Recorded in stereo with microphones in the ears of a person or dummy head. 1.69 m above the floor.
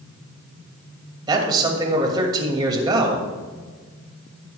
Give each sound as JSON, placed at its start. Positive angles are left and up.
{"t": 1.3, "sound": "a man speaking", "side_deg": -25, "distance_m": 2.5}